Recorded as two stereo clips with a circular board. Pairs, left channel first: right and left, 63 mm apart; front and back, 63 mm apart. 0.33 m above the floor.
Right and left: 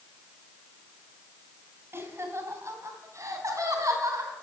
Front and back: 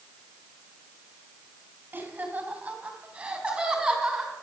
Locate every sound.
1.9 s laughter: 125° left, 2 m; by 4.3 s 100° left, 3 m